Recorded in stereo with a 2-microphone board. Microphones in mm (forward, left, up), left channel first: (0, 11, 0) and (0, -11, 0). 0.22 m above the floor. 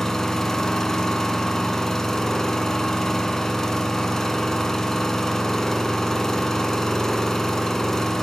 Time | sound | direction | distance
0.0 | an engine running | 30° left (ahead or behind) | 1.5 m